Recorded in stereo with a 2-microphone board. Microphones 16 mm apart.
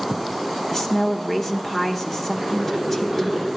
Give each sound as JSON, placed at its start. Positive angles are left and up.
{"t": 0.7, "sound": "a woman speaking", "side_deg": 20, "distance_m": 1.0}
{"t": 2.4, "sound": "boiling", "side_deg": -25, "distance_m": 7.0}